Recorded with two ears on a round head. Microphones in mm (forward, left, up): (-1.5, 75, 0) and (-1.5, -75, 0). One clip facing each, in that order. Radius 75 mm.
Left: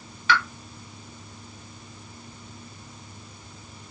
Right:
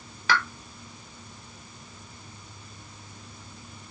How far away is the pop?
About 0.8 m.